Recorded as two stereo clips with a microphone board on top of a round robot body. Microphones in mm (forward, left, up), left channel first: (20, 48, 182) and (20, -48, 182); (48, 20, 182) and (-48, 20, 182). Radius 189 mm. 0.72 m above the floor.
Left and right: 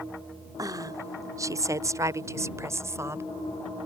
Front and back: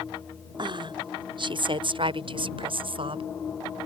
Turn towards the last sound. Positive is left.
turn(degrees=-155)